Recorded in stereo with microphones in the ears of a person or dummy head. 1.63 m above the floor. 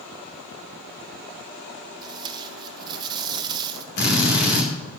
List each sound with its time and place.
2.0 s tape being pulled: 20° right (ahead or behind), 0.8 m
4.0 s a drill: 50° left (ahead or behind), 2.5 m